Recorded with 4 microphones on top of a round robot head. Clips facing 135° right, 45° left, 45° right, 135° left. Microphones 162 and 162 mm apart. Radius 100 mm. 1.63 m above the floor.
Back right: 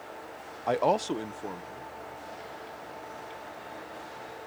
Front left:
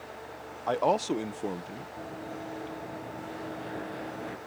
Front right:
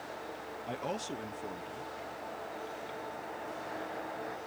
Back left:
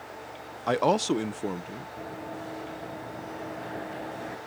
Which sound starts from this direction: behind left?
A man speaking, at 0.7 s.